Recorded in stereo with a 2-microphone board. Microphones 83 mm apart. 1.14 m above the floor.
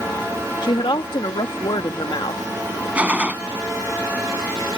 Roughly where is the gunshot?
Centre.